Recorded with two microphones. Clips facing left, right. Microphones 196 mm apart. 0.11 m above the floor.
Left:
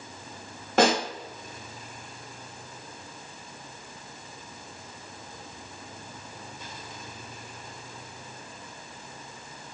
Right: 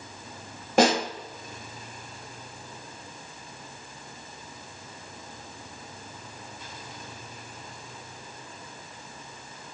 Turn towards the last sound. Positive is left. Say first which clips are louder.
# right 1 dB
turn(degrees=-15)  # may be behind; listen again after turning